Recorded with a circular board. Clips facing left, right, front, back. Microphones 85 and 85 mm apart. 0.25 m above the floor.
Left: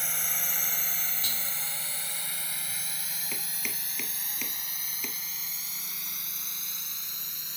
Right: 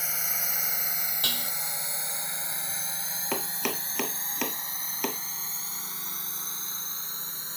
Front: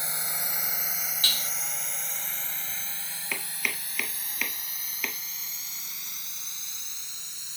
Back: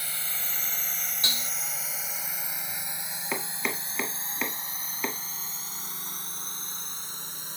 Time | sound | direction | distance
0.0 | a drone | 15° right | ?
1.2 | dishes clattering | 110° right | ?
3.3 | chopping | 115° right | ?